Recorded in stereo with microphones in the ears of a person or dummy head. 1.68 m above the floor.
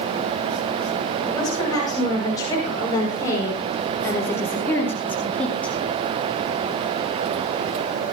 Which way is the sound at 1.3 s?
20° left (ahead or behind).